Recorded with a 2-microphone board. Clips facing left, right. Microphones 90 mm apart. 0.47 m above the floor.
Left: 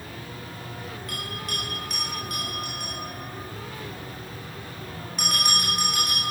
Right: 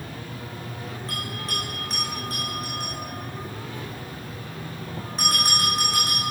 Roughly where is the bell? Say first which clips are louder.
Right 2 dB; right.